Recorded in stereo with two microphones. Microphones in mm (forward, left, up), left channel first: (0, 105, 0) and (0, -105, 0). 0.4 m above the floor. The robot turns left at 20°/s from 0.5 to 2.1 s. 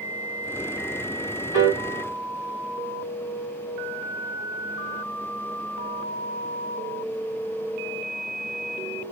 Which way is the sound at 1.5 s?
60° left (ahead or behind).